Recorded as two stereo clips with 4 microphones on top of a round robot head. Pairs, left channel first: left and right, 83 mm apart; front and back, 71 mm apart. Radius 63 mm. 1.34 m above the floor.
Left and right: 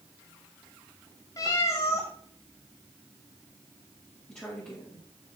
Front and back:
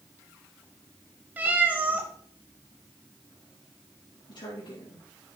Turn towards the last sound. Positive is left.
turn(degrees=15)